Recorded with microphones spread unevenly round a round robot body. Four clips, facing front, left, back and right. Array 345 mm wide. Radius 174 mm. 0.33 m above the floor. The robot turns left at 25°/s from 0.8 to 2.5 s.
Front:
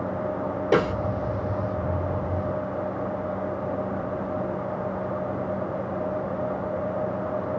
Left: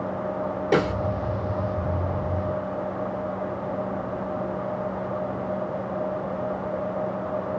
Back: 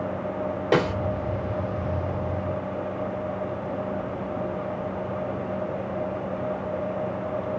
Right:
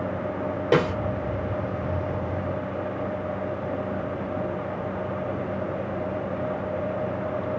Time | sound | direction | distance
0.7 | a snare drum | 115° right | 1.5 m